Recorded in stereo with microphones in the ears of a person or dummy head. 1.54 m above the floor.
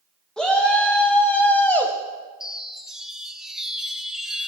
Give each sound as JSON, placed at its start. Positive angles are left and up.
{"t": 0.4, "sound": "a shout", "side_deg": 5, "distance_m": 2.0}
{"t": 2.4, "sound": "a chime", "side_deg": 0, "distance_m": 0.9}